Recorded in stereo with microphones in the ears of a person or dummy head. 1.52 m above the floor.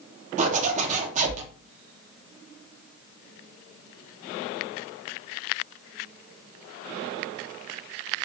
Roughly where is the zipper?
Right.